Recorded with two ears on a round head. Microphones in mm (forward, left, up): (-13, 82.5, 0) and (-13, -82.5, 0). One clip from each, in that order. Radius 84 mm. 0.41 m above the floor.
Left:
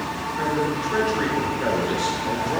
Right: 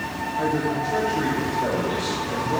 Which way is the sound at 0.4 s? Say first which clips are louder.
Even; 70° left (ahead or behind).